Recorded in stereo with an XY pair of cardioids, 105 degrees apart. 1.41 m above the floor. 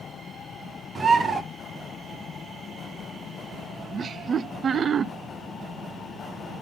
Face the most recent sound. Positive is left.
turn(degrees=-45)